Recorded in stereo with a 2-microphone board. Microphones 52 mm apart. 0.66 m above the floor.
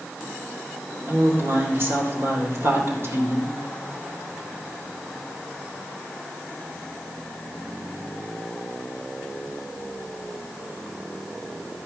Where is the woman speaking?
50° right (ahead or behind), 3 m.